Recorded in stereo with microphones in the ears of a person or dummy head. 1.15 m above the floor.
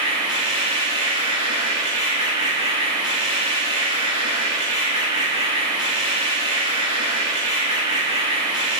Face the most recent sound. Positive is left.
turn(degrees=-25)  # may be behind; listen again after turning